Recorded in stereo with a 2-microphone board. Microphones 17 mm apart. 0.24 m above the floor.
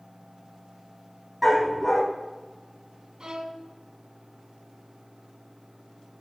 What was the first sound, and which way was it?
A dog barking, 10° right (ahead or behind).